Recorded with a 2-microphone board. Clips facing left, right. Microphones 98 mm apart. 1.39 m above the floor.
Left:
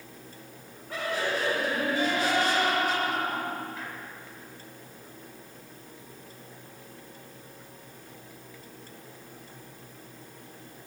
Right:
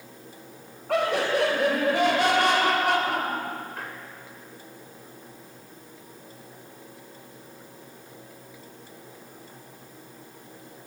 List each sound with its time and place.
0.9 s laughter: 80° right, 5.5 m; by 4.0 s 60° right (ahead or behind), 4.5 m